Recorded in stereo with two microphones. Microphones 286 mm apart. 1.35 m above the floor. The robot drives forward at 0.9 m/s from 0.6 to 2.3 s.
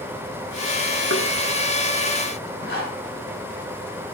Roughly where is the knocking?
Left.